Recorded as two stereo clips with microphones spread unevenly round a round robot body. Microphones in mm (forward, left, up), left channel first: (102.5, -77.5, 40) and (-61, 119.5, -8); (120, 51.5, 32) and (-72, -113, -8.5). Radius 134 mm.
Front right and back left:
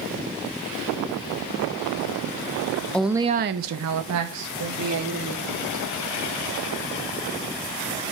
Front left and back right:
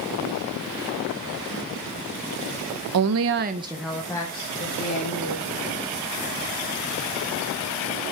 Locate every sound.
2.9 s a woman speaking: 140° right, 0.7 m; by 5.7 s 100° left, 2.5 m